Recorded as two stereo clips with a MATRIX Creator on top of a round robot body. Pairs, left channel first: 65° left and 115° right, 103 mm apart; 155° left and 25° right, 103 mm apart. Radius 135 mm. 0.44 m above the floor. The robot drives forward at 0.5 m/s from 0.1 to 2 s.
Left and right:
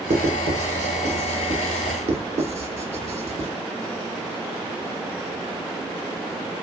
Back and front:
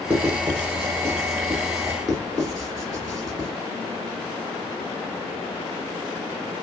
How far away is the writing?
About 3 m.